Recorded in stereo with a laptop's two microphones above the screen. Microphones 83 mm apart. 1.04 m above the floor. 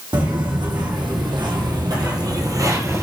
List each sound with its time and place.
0.1 s footsteps: 65° right (ahead or behind), 2.5 m; by 3.0 s 30° right (ahead or behind), 1.3 m